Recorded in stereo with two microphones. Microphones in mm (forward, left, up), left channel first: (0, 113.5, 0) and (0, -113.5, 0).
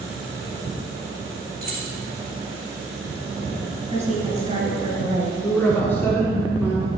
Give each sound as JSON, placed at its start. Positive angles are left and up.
{"t": 1.6, "sound": "keys jangling", "side_deg": -45, "distance_m": 2.0}
{"t": 3.9, "sound": "a woman speaking", "side_deg": -30, "distance_m": 1.9}
{"t": 5.4, "sound": "a man speaking", "side_deg": 10, "distance_m": 1.3}